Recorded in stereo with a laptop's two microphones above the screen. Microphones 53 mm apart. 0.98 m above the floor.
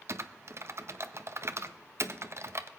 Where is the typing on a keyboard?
55° right (ahead or behind), 0.5 m.